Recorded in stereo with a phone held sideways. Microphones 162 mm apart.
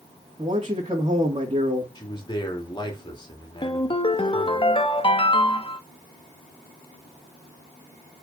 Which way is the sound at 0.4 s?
35° right (ahead or behind).